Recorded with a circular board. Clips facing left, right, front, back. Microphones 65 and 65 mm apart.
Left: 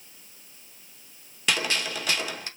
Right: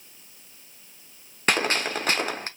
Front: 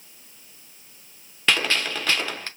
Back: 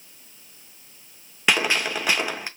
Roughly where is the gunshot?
Right.